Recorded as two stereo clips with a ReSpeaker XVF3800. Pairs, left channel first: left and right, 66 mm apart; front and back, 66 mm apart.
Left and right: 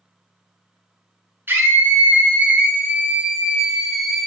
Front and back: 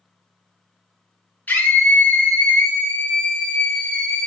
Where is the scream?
55° right, 2.5 m; by 4.3 s straight ahead, 1.6 m.